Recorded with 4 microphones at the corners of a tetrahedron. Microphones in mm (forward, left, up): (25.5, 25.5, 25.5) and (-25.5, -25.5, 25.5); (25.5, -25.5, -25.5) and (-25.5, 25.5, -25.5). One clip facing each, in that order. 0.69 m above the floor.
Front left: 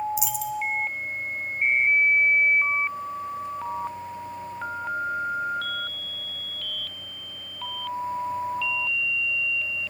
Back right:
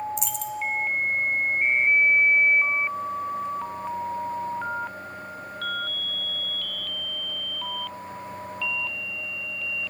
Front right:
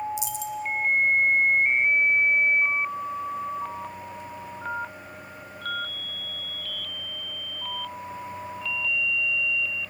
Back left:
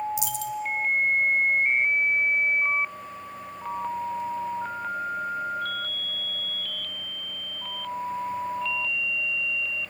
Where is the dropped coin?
130° left, 1.2 m.